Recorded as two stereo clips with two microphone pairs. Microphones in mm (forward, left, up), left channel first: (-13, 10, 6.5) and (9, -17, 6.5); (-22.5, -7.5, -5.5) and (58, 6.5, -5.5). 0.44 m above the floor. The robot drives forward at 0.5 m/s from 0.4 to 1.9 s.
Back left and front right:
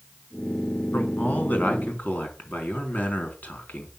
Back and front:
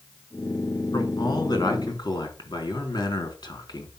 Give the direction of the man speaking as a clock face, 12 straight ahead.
7 o'clock.